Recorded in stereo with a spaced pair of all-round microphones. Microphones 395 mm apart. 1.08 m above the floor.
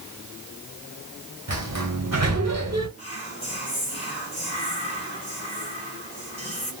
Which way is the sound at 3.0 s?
15° left (ahead or behind).